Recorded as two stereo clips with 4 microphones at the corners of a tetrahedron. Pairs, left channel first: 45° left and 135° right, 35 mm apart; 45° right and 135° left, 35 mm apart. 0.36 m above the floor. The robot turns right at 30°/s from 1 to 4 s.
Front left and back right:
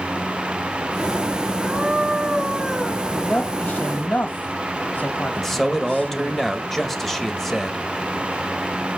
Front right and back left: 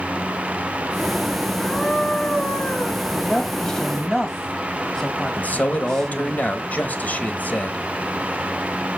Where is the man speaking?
35° right, 1.4 m.